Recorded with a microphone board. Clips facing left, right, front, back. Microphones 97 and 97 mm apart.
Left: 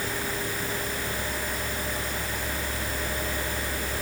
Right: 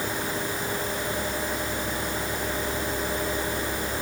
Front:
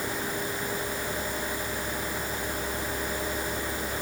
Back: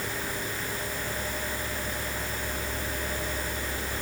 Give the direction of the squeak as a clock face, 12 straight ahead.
No squeak in this recording.